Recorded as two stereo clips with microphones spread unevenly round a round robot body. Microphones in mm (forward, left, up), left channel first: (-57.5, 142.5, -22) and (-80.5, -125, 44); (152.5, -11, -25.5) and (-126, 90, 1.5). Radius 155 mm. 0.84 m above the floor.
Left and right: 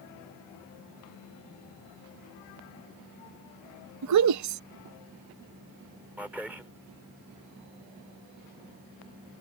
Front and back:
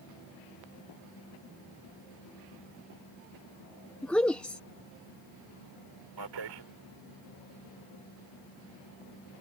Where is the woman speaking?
105° right.